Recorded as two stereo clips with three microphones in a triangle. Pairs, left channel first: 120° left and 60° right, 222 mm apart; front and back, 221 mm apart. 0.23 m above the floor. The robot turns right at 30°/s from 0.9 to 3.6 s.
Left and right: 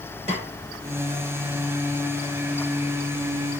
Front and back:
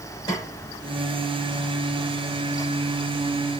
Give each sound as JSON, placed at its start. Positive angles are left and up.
{"t": 0.3, "sound": "a snare drum", "azimuth_deg": -55, "distance_m": 1.6}